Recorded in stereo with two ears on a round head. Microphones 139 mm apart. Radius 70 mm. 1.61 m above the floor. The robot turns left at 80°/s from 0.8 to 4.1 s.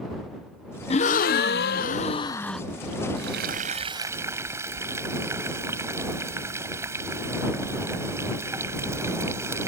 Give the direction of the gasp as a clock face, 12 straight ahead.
7 o'clock.